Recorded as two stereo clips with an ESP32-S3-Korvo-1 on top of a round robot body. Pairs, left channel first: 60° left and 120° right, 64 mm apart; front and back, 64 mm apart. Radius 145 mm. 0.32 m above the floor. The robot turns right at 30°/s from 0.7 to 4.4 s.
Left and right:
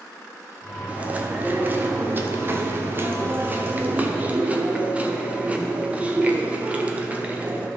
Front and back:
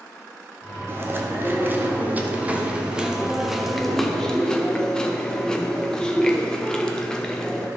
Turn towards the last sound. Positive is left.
turn(degrees=-70)